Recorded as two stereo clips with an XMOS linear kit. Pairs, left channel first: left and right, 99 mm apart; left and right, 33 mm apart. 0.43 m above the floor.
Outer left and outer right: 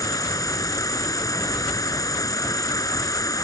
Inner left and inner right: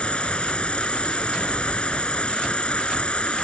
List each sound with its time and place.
0.0 s an insect: 35° left (ahead or behind)